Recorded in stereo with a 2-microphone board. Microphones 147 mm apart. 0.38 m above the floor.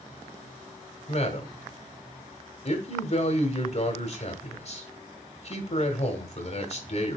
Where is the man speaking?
45° left (ahead or behind), 1.5 m.